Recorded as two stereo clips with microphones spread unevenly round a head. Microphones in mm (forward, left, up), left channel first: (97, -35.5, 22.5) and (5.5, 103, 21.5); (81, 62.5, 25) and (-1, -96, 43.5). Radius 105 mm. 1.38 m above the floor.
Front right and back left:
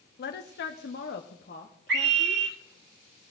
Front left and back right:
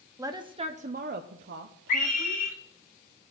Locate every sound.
0.2 s a woman speaking: 40° right, 0.9 m; by 2.5 s 125° right, 1.2 m
1.9 s a scream: 115° left, 2.5 m